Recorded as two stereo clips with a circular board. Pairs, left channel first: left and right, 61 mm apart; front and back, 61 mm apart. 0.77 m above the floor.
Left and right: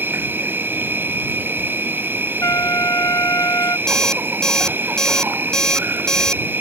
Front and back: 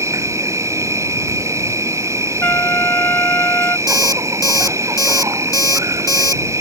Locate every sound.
0.0 s an insect: 145° right
2.4 s a trumpet: 55° left
3.9 s an alarm clock: 10° left